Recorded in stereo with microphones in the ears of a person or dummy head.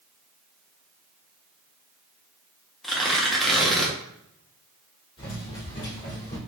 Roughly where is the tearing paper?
Centre.